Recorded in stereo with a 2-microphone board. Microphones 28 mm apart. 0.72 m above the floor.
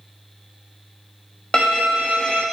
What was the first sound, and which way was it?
A violin, 25° left (ahead or behind).